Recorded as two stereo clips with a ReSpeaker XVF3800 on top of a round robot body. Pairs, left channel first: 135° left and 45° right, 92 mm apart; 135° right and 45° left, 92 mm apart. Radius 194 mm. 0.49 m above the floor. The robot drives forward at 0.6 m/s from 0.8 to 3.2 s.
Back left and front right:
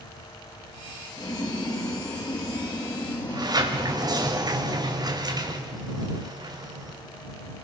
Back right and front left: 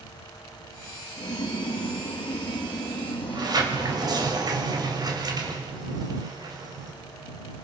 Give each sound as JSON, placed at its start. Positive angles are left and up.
{"t": 1.2, "sound": "boiling", "azimuth_deg": -175, "distance_m": 3.0}
{"t": 3.3, "sound": "a sliding door", "azimuth_deg": 0, "distance_m": 3.5}